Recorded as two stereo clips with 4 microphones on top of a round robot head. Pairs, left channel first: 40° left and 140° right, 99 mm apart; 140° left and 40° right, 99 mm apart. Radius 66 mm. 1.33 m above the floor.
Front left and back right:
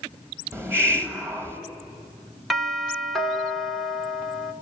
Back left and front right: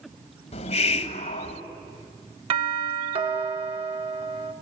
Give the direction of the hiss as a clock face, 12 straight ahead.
7 o'clock.